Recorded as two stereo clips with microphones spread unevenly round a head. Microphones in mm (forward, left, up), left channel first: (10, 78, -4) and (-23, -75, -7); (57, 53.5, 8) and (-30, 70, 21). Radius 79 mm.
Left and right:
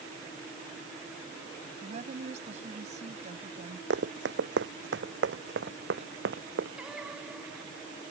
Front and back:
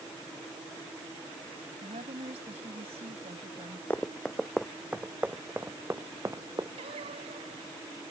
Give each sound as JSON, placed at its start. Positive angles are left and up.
{"t": 1.8, "sound": "a woman speaking", "azimuth_deg": -150}
{"t": 3.9, "sound": "running footsteps", "azimuth_deg": -95}
{"t": 6.8, "sound": "singing", "azimuth_deg": 170}